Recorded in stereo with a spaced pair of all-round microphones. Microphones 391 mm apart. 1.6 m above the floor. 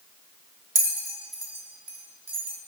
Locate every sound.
0.8 s a bell: 50° right (ahead or behind), 2.5 m